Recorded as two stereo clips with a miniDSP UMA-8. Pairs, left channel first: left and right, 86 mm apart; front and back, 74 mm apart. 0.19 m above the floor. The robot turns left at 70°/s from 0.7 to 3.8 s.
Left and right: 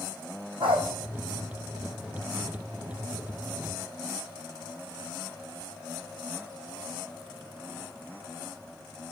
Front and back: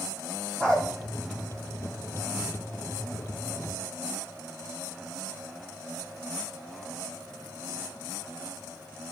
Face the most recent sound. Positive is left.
turn(degrees=60)